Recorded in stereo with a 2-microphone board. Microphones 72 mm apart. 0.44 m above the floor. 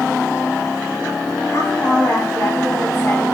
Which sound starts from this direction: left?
A woman speaking, at 1.5 s.